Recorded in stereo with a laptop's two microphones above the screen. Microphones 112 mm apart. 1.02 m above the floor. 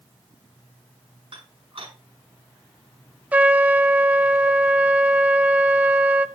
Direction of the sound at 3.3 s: 15° right (ahead or behind).